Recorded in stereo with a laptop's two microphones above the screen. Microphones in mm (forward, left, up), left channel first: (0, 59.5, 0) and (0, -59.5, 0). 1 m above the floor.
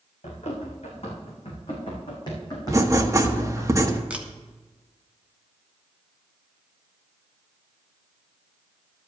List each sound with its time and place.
0.2 s running footsteps: 70° left (ahead or behind), 4 m; by 3.7 s 20° left (ahead or behind), 4 m
2.7 s writing: 25° right (ahead or behind), 1.1 m
4.1 s a camera shutter: 10° right (ahead or behind), 0.9 m